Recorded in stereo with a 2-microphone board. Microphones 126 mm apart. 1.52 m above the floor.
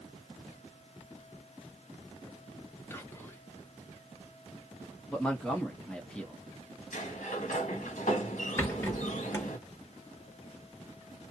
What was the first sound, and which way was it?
Whispering, 20° left (ahead or behind).